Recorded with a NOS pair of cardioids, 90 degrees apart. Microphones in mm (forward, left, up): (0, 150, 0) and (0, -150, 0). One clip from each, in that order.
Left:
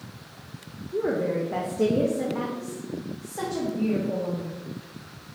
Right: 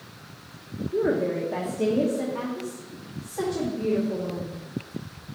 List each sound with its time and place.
0.9 s a woman speaking: 10° right, 0.9 m; by 4.5 s 30° left, 2.5 m